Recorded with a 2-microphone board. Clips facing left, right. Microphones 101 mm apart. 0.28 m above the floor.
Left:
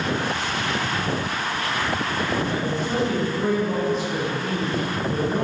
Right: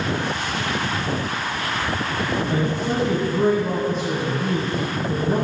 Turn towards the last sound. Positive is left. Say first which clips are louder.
# right 2 dB
turn(degrees=-60)  # may be behind; listen again after turning